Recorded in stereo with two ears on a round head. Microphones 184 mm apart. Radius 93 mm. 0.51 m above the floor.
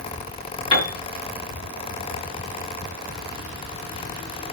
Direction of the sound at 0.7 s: 25° left (ahead or behind).